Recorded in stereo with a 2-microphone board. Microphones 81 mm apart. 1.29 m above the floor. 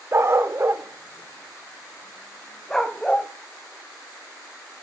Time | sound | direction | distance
0.1 | a dog barking | 35° right (ahead or behind) | 0.9 m